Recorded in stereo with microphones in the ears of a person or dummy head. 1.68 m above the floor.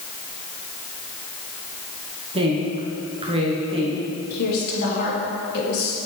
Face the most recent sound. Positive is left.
turn(degrees=55)  # may be behind; listen again after turning